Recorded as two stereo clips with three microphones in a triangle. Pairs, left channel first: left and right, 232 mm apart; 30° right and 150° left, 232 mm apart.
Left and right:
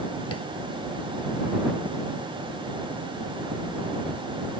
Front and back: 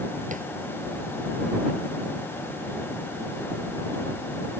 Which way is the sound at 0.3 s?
95° left.